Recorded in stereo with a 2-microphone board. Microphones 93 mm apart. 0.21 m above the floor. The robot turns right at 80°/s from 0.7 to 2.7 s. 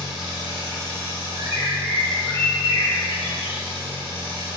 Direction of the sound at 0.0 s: 5° right.